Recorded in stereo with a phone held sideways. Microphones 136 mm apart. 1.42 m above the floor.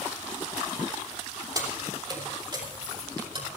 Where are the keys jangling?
30° right (ahead or behind), 3.5 m; by 3.5 s 40° right (ahead or behind), 5 m.